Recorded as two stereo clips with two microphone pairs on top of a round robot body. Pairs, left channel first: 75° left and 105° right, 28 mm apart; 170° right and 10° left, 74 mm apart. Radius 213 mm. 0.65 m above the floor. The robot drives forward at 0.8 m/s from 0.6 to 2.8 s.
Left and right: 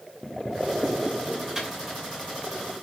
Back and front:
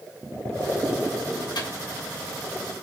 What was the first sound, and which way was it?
A microwave, 170° right.